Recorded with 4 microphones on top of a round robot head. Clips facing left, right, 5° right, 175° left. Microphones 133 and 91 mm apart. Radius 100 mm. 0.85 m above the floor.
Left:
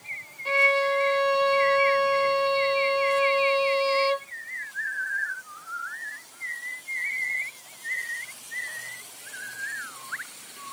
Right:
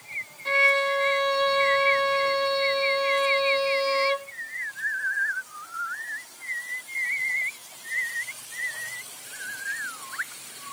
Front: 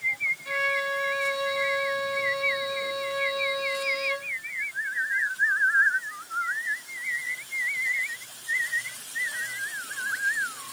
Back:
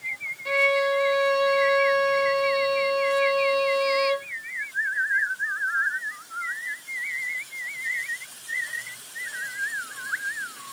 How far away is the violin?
About 1.2 m.